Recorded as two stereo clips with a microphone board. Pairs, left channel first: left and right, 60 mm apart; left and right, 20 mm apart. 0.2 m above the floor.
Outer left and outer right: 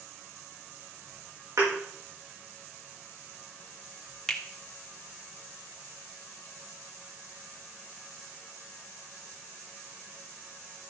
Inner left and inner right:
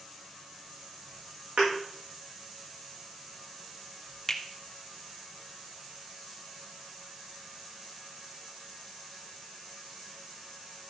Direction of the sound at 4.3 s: 15° left (ahead or behind).